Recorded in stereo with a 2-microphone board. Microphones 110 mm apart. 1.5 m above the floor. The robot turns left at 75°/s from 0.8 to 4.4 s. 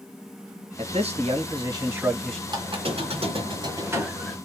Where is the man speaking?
70° right, 1.2 m; by 2.4 s 170° left, 1.2 m.